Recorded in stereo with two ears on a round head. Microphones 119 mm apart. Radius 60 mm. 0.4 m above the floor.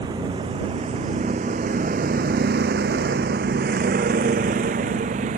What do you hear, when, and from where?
0.0 s a vehicle: 30° right (ahead or behind); by 5.4 s 55° right (ahead or behind)